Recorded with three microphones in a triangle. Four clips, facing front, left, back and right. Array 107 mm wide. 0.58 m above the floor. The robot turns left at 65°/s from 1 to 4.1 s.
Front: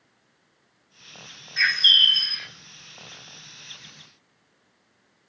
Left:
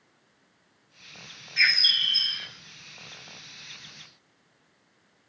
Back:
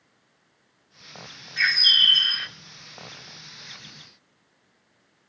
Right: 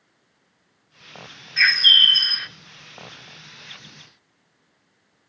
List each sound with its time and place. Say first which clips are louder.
1.6 s a bird: right 7 dB, front 1 dB; 85° right, 1.1 m; by 2.5 s 145° right, 1.1 m